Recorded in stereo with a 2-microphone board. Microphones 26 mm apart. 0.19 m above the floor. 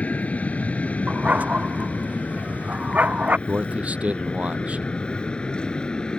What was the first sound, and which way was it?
An aircraft, 65° left (ahead or behind).